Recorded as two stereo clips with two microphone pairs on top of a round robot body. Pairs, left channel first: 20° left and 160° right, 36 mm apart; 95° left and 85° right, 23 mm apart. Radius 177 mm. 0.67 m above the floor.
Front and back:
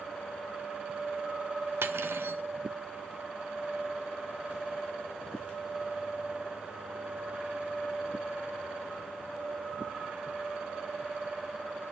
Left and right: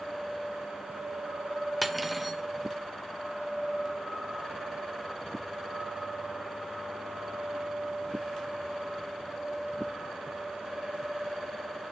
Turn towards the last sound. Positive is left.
turn(degrees=180)